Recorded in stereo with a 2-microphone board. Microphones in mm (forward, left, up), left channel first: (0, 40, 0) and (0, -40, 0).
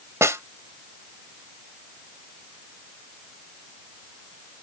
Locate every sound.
0.2 s a snare drum: 35° right (ahead or behind)